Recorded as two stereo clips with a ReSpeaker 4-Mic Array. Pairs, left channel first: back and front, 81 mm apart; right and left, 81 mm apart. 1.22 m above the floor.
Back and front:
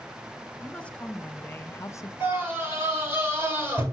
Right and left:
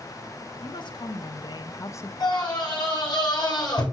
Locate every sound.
0.6 s a woman speaking: 105° right, 1.2 m; by 2.1 s 145° right, 0.5 m
2.2 s a scream: 60° right, 6 m